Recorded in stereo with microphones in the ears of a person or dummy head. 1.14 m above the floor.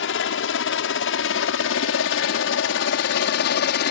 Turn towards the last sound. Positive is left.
turn(degrees=55)  # may be behind; listen again after turning